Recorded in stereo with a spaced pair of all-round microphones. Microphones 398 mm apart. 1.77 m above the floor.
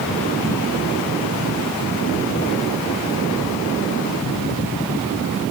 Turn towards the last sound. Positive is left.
No sound to turn to.